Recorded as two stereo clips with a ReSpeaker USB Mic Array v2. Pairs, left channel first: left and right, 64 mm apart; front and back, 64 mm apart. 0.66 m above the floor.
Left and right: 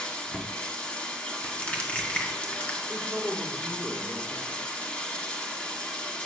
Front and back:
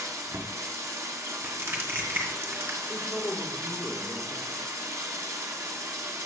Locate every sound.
0.0 s running water: 155° left, 1.1 m
1.4 s crushing: 145° left, 1.5 m
2.9 s a man speaking: 5° right, 1.7 m